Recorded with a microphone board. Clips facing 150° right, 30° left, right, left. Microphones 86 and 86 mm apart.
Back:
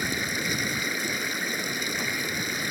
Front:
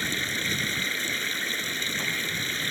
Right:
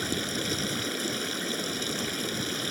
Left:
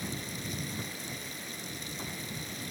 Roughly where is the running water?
Right.